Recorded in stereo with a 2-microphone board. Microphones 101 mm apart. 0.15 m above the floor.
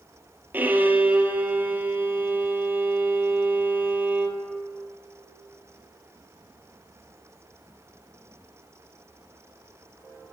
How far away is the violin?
About 1.4 m.